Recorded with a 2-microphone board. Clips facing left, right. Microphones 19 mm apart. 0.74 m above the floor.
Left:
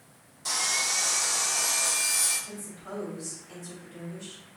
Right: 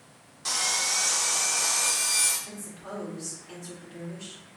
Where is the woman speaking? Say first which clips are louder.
Even; 45° right (ahead or behind), 1.5 m.